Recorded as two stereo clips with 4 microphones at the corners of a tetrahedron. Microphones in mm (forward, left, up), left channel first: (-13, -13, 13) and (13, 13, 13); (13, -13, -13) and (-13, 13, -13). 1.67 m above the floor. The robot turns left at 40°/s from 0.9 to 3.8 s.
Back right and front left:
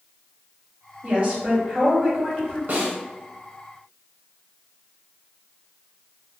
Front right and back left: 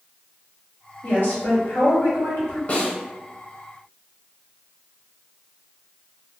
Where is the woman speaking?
10° right, 1.3 m; by 2.6 s 70° right, 1.3 m.